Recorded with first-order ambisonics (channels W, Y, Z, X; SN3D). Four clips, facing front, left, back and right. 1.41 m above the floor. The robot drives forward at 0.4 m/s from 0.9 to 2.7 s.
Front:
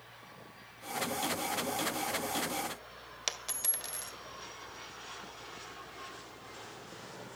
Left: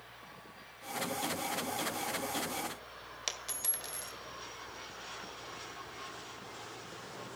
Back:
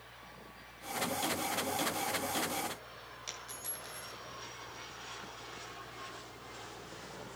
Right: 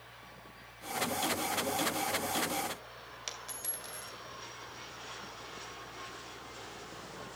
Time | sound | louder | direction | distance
3.3 | a dropped coin | left 4 dB, front 8 dB | 20° left | 1.6 m